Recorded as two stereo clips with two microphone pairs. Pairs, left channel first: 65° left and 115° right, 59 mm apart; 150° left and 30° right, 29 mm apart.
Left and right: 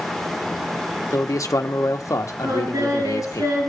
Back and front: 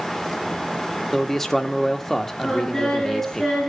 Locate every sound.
1.1 s a man speaking: 75° left, 1.7 m
2.4 s singing: 125° right, 7.5 m